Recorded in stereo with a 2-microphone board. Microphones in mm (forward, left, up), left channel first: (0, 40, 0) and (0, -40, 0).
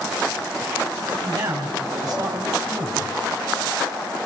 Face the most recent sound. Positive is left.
turn(degrees=-50)  # may be behind; listen again after turning